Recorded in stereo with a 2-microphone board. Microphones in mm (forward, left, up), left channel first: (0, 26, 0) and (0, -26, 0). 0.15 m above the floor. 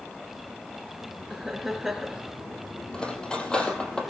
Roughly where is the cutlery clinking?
Centre.